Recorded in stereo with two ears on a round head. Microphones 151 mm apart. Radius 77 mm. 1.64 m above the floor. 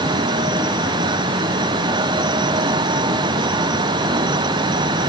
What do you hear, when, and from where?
Only background noise.